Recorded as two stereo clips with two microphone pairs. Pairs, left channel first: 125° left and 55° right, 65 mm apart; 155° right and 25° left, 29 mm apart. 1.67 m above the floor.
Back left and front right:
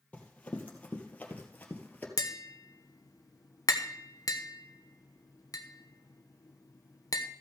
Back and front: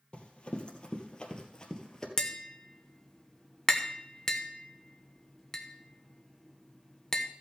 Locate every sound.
0.1 s running footsteps: 175° right, 2.5 m; by 2.1 s 165° left, 2.0 m
2.2 s tapping: 140° left, 1.0 m